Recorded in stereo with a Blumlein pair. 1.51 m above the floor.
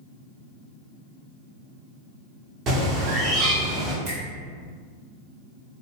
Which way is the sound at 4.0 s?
50° right.